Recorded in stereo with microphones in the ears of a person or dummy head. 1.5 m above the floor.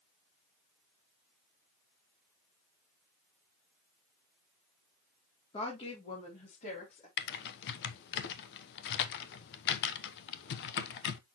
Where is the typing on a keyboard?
60° left (ahead or behind), 0.8 m.